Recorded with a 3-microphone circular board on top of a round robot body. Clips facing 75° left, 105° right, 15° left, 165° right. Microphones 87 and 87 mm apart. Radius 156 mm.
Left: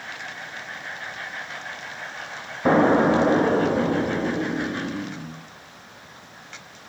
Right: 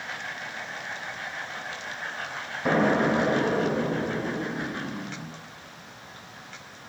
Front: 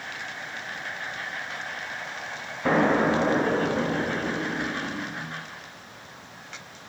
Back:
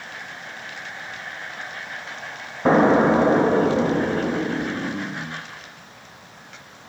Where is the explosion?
130° left, 0.6 m.